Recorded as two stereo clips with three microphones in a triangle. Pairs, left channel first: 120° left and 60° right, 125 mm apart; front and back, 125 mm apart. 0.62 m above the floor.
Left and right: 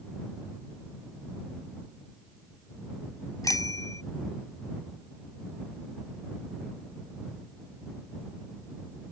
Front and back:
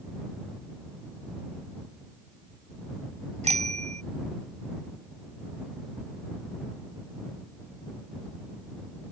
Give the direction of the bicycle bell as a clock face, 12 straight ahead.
6 o'clock.